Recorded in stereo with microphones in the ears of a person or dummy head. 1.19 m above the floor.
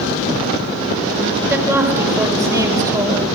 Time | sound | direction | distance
1.5 | a woman speaking | 15° right (ahead or behind) | 5 m